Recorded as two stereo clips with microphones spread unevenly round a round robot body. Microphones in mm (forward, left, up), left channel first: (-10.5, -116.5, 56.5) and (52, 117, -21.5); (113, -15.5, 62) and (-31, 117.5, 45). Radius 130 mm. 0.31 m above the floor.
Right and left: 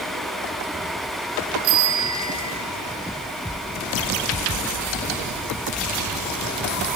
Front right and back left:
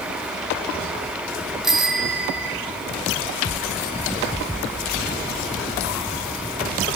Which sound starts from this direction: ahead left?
A bicycle bell, at 1.6 s.